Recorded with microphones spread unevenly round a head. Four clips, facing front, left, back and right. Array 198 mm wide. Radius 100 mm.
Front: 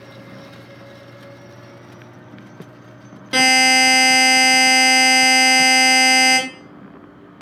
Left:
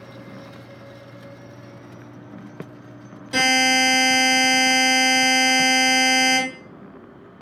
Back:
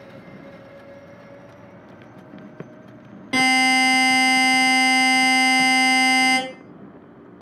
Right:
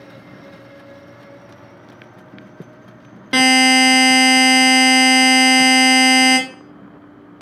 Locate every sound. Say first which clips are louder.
3.3 s a buzzer: right 6 dB, front 2 dB; 75° right, 0.8 m